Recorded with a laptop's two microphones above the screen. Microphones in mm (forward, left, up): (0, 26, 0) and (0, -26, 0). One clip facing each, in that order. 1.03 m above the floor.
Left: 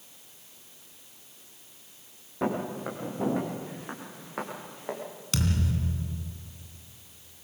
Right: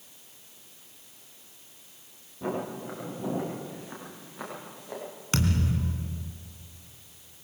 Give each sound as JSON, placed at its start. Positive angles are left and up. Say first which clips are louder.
{"t": 2.4, "sound": "footsteps", "louder": "left 3 dB", "side_deg": 65, "distance_m": 9.0}
{"t": 5.3, "sound": "a thud", "louder": "right 2 dB", "side_deg": -35, "distance_m": 2.0}